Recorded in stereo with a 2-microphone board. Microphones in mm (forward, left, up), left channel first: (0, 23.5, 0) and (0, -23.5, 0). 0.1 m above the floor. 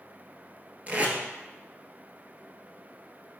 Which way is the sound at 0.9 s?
35° right (ahead or behind).